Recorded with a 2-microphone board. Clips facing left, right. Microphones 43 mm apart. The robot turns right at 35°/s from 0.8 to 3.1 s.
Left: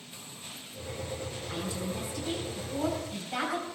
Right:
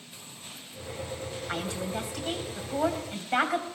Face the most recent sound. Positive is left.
turn(degrees=-50)